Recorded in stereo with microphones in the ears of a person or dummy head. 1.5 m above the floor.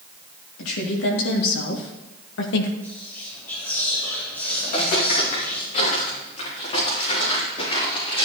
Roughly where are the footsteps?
Left.